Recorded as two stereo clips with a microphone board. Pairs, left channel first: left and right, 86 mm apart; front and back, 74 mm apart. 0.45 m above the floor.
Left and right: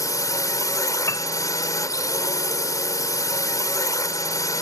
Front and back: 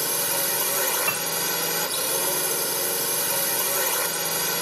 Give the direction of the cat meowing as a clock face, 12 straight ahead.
I don't hear a cat meowing.